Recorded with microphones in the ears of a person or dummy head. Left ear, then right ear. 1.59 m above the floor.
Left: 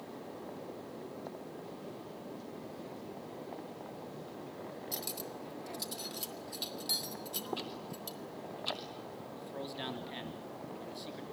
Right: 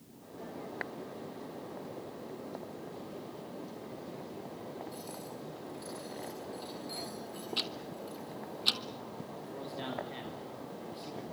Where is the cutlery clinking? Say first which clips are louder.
Left 2 dB; 60° left (ahead or behind), 2.5 m.